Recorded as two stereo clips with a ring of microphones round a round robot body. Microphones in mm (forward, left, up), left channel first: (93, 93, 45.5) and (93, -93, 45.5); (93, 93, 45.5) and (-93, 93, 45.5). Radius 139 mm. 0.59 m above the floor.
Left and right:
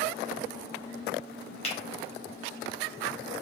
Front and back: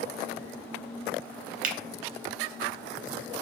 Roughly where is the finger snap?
Behind left.